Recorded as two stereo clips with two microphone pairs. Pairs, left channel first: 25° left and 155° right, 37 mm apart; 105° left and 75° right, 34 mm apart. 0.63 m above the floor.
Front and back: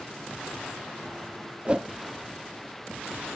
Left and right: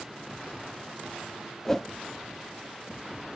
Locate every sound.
1.6 s a whoosh: straight behind, 0.7 m